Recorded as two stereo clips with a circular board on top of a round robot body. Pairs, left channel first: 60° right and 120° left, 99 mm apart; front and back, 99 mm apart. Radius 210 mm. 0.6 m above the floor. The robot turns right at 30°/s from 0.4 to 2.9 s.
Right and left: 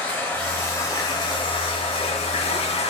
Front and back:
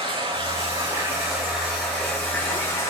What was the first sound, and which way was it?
Running water, 135° right.